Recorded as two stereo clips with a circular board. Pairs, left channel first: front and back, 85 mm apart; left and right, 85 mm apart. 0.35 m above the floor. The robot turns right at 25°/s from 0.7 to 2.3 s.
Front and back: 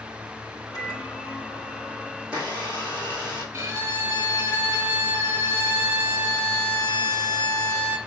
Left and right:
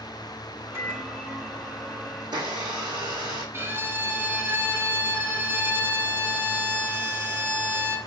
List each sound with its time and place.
0.7 s a microwave: 35° right, 2.5 m; by 2.1 s straight ahead, 2.5 m
2.2 s a blender: 110° right, 4 m; by 3.4 s 105° right, 4 m
3.5 s a violin: 135° right, 2.5 m